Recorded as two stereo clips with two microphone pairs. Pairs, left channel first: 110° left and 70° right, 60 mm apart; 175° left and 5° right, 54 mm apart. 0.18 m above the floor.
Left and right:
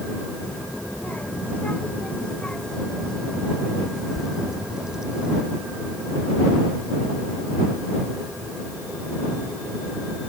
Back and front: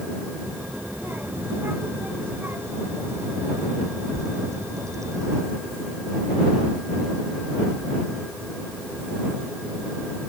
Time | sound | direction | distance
0.4 | a child speaking | 50° left | ?